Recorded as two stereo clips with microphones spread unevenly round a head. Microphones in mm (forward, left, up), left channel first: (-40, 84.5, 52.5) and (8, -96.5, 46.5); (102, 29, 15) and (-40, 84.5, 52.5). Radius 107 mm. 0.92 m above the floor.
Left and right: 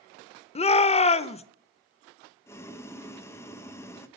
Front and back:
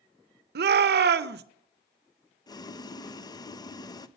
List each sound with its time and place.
0.6 s a shout: 160° left, 0.6 m
2.5 s boiling: 30° left, 0.6 m